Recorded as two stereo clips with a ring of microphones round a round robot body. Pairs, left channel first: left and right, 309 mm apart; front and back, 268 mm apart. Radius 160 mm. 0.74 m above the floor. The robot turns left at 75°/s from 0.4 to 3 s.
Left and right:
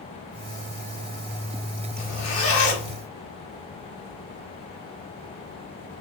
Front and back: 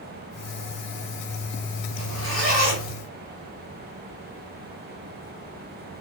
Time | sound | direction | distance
2.0 | a zipper | 165° left | 1.9 m